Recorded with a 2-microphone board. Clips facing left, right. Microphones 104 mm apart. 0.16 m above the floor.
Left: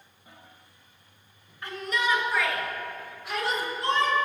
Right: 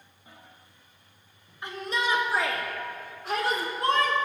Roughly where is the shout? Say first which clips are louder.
Left 1 dB; right.